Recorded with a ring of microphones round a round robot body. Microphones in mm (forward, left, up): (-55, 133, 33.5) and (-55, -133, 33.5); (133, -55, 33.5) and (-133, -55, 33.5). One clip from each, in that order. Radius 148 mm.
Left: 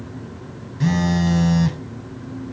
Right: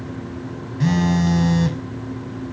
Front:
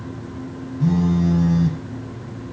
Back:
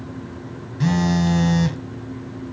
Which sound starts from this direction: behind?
A phone buzzing, at 0.8 s.